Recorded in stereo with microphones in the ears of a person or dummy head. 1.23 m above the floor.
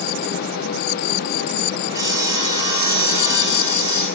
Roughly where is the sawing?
Right.